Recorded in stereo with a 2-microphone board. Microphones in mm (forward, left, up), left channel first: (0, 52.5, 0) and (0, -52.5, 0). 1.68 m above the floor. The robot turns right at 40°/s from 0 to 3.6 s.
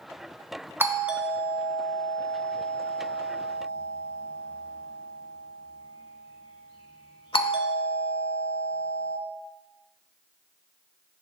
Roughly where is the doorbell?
Right.